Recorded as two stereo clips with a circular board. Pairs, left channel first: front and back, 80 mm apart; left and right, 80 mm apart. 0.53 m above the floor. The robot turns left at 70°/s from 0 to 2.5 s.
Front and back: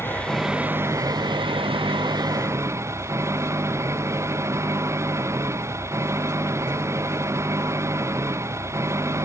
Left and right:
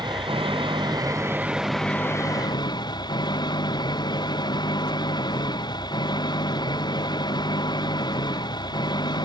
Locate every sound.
0.0 s an engine running: 60° right; by 9.3 s 125° left